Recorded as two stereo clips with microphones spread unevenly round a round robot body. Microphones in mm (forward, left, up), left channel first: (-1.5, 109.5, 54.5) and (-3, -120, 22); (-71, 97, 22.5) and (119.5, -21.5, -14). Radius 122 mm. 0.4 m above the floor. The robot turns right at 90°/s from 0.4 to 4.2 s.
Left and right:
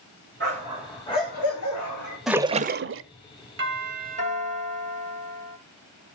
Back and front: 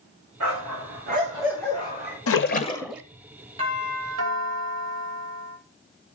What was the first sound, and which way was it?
A dog barking, 45° right.